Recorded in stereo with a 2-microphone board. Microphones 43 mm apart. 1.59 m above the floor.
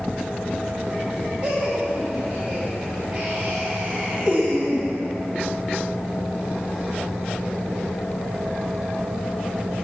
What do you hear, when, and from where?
1.4 s laughter: 20° right (ahead or behind), 2.0 m